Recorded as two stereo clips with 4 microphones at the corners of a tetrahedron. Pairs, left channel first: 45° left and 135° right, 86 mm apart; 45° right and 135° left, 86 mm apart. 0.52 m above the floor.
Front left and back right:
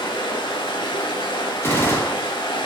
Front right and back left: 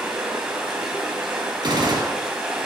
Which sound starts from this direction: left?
A gunshot, at 1.6 s.